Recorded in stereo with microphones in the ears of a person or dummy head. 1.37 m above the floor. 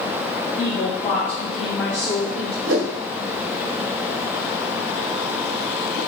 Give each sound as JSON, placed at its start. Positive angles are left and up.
{"t": 0.6, "sound": "a woman speaking", "side_deg": 25, "distance_m": 1.6}
{"t": 2.6, "sound": "a whoosh", "side_deg": -60, "distance_m": 1.6}